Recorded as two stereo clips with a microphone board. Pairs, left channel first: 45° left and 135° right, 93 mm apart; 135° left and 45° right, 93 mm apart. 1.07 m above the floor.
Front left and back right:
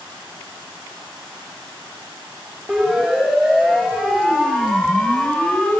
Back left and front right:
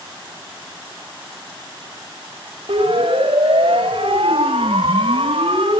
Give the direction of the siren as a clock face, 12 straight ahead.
2 o'clock.